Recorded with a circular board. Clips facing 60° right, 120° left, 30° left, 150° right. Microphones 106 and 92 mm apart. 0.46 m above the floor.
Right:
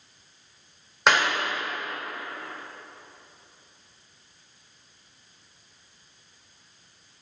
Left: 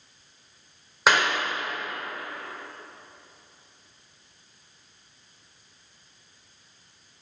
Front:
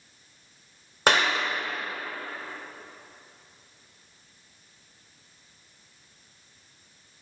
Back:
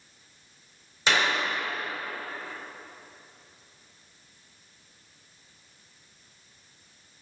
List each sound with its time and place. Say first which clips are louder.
1.1 s a clap: even, front 3 dB; 35° left, 1.3 m